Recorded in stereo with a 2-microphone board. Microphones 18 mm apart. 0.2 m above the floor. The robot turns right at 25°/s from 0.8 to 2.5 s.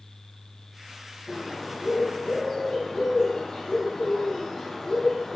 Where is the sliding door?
I don't hear a sliding door.